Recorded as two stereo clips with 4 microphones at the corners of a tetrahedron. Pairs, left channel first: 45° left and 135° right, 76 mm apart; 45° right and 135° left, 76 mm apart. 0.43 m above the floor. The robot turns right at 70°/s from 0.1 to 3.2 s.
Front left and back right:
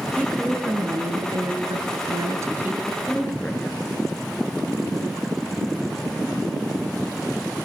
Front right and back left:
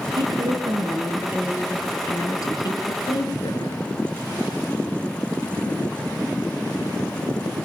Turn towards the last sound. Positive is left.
turn(degrees=-35)